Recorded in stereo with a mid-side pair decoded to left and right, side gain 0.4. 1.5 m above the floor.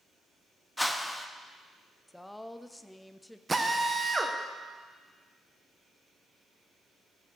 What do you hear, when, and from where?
0.8 s a whoosh: 10° left, 0.8 m
2.1 s a woman speaking: 10° left, 0.5 m
3.5 s a drill: 25° right, 1.2 m